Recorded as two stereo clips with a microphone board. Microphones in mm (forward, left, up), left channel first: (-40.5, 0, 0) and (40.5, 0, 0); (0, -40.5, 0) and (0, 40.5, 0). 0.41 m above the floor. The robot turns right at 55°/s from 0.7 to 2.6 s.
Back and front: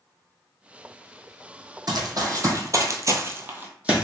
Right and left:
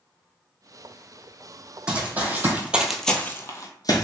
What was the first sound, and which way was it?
Running footsteps, 10° left.